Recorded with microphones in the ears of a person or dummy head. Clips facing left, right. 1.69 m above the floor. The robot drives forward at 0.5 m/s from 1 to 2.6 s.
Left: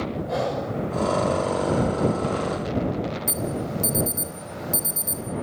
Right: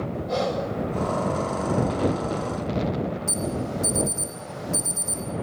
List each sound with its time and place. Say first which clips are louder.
0.3 s breathing: right 2 dB; 10° left (ahead or behind), 6.5 m
3.3 s an alarm: even; 20° left (ahead or behind), 4 m